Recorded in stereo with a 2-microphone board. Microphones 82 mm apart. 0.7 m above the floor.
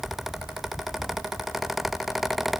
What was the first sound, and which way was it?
Only background noise.